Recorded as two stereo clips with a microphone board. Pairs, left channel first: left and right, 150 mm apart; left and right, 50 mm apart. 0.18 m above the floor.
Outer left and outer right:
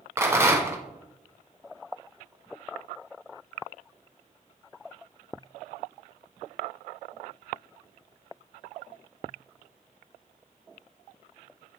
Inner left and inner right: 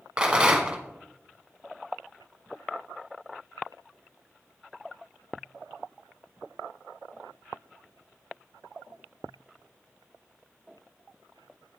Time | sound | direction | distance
0.2 | a rattle | 15° right (ahead or behind) | 1.1 m